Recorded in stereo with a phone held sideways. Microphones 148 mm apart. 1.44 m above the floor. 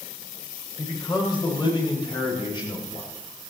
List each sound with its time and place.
0.8 s a man speaking: 35° left (ahead or behind), 6.5 m; by 3.1 s 30° left (ahead or behind), 8 m